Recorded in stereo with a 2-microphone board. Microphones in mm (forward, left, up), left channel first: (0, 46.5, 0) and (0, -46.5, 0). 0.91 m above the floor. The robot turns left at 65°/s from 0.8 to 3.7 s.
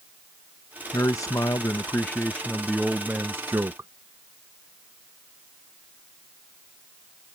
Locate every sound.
0.9 s a man speaking: 115° left; by 3.9 s 65° right